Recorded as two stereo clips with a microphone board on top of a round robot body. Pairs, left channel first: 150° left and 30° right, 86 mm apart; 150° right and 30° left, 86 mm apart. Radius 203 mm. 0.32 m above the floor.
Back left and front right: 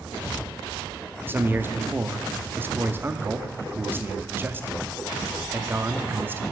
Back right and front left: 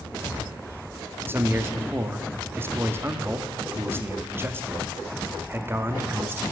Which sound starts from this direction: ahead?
A man speaking, at 1.3 s.